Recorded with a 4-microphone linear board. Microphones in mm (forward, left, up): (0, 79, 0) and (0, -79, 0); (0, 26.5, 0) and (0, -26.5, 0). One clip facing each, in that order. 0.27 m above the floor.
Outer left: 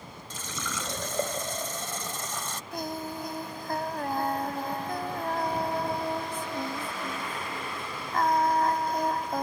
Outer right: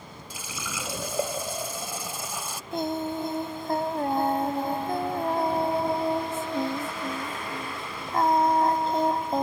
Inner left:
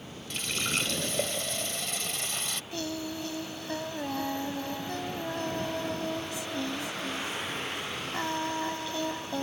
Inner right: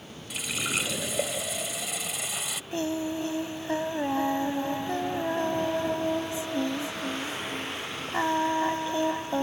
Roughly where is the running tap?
Centre.